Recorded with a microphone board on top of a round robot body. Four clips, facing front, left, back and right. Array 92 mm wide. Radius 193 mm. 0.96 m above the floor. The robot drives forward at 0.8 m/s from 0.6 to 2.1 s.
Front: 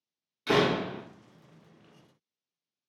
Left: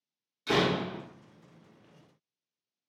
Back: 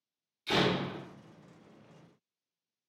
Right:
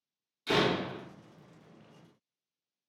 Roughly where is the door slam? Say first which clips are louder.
Left 1 dB, front 5 dB; ahead.